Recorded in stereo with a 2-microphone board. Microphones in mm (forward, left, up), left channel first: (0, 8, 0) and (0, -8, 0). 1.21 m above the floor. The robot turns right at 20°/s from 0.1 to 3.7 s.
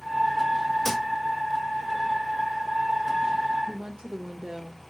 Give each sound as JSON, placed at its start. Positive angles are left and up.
{"t": 0.8, "sound": "a thud", "side_deg": 20, "distance_m": 1.6}
{"t": 3.7, "sound": "a woman speaking", "side_deg": -50, "distance_m": 1.1}